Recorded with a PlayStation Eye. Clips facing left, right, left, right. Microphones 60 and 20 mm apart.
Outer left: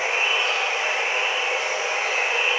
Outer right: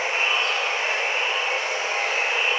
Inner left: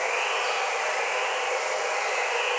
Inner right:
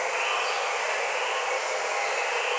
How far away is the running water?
About 0.9 m.